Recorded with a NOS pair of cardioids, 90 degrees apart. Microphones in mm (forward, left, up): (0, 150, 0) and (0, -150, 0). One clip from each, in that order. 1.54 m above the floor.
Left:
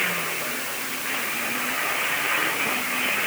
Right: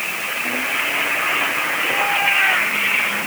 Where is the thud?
I don't hear a thud.